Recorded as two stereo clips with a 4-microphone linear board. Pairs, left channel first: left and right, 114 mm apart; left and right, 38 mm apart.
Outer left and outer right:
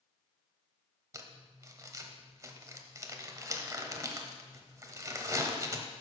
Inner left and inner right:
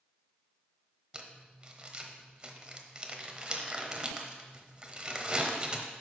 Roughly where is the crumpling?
Right.